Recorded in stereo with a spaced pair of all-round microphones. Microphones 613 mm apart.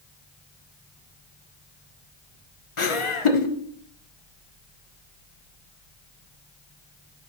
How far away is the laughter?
About 0.9 m.